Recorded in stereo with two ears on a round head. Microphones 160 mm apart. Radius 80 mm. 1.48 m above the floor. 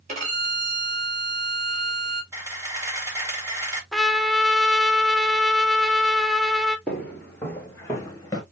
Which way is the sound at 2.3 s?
15° right (ahead or behind).